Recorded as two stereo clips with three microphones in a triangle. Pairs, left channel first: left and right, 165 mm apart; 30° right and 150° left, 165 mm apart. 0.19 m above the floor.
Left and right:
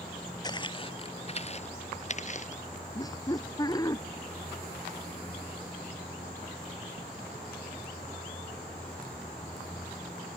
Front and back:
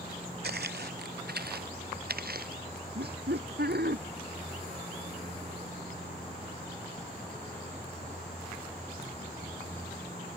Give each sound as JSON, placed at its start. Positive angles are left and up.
{"t": 0.4, "sound": "footsteps", "azimuth_deg": 155}
{"t": 3.0, "sound": "laughter", "azimuth_deg": 155}